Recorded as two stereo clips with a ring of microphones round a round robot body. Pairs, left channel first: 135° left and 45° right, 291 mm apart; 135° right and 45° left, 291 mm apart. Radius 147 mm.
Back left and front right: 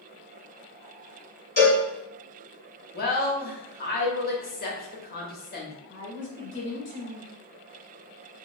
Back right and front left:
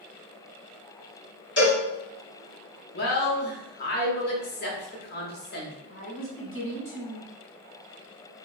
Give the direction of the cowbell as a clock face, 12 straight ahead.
6 o'clock.